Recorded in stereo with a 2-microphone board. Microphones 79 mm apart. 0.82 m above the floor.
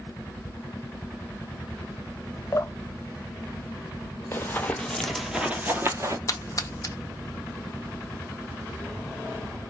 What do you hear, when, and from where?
2.5 s dripping: 35° left (ahead or behind), 0.7 m
4.3 s running footsteps: 30° left (ahead or behind), 1.0 m; by 6.2 s 40° right (ahead or behind), 1.0 m
6.3 s a splash: 40° left (ahead or behind), 0.9 m